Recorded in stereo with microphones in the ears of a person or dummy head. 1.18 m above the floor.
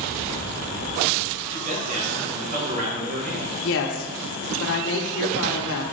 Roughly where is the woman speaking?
Left.